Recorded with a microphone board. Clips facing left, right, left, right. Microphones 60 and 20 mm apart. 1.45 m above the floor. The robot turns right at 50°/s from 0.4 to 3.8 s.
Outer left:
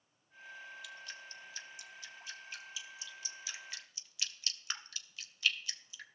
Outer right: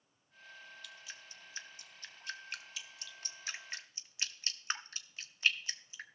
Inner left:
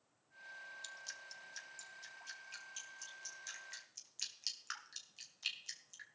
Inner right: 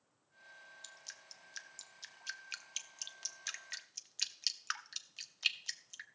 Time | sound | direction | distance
0.8 | dripping | 5° left (ahead or behind) | 0.8 m